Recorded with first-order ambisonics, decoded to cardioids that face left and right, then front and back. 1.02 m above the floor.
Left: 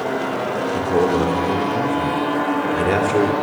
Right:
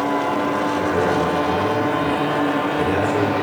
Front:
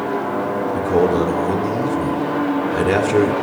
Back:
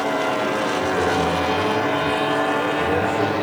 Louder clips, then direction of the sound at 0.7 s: Left 4 dB, front 6 dB; 25° left.